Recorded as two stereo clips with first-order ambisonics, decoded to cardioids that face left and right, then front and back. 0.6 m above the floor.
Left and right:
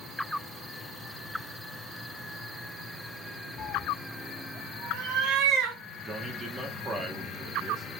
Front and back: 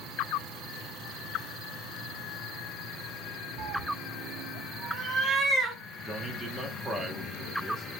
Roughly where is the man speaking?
Behind right.